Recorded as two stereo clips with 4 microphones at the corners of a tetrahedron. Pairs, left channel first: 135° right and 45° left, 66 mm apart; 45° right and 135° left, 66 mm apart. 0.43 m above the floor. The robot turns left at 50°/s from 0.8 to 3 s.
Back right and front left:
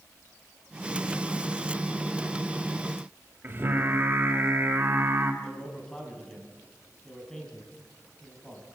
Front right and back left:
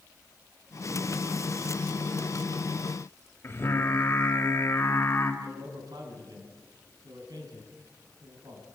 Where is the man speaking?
145° left, 4.5 m.